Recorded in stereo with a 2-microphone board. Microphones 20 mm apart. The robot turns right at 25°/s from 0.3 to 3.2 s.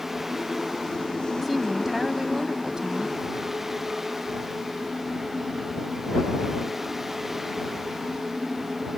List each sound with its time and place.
1.4 s a woman speaking: 170° right; by 3.1 s 125° right